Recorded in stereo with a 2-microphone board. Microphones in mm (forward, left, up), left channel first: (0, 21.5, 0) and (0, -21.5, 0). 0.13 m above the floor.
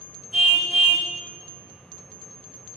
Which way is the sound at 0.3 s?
Centre (ahead or behind).